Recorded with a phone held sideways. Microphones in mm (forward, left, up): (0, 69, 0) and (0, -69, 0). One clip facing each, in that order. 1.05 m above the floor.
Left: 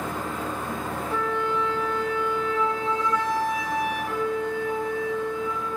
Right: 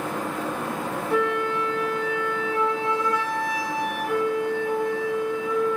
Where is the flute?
70° right (ahead or behind), 1.1 m.